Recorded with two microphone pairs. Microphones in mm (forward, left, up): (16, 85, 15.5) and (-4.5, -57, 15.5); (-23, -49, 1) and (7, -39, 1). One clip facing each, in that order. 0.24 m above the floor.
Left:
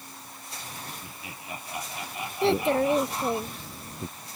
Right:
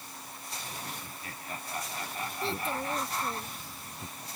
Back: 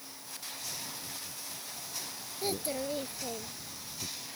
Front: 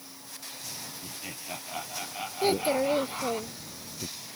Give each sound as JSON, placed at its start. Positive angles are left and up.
{"t": 1.0, "sound": "laughter", "azimuth_deg": 5}
{"t": 2.4, "sound": "a child speaking", "azimuth_deg": 75}